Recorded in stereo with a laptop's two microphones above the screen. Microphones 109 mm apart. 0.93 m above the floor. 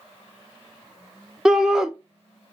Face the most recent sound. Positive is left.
turn(degrees=-5)  # may be behind; listen again after turning